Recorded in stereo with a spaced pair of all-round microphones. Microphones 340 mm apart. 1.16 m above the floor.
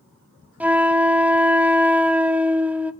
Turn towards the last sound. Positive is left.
turn(degrees=-5)  # may be behind; listen again after turning